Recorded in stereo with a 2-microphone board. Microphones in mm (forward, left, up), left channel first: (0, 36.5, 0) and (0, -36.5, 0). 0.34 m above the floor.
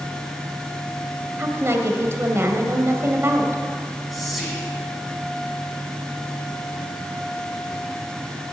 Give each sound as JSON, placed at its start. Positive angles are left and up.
{"t": 1.4, "sound": "a woman speaking", "side_deg": -35, "distance_m": 1.9}
{"t": 4.1, "sound": "whispering", "side_deg": 0, "distance_m": 2.5}